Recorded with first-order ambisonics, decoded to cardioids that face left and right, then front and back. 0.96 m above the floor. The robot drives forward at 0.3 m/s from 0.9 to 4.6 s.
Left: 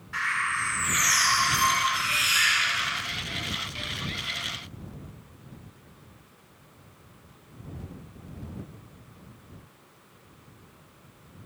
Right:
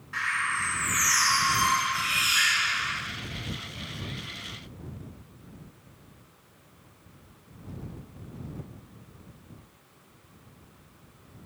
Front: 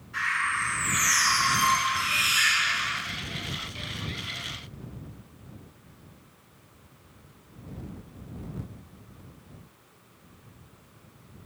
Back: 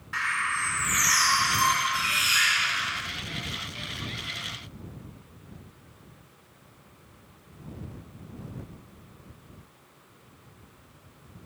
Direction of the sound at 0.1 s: 175° left.